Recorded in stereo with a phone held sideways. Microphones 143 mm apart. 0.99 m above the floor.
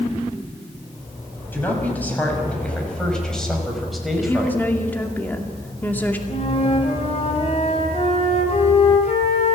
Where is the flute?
50° left (ahead or behind), 4 m.